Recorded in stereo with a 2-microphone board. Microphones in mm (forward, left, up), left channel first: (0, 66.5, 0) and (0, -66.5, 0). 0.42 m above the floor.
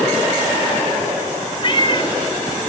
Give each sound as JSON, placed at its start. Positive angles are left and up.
{"t": 1.6, "sound": "a cat meowing", "side_deg": 40, "distance_m": 0.5}